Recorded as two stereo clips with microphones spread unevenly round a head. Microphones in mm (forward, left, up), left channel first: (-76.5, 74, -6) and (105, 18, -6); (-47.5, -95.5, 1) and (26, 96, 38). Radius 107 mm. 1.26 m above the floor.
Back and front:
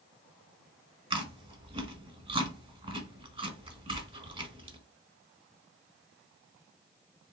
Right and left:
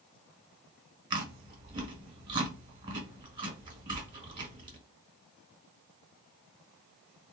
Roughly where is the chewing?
Ahead left.